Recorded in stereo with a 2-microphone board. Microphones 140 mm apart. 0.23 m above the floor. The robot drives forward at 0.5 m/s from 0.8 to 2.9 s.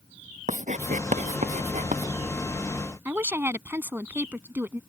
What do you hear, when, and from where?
0.5 s writing: 60° right (ahead or behind)
3.0 s a woman speaking: 15° right (ahead or behind)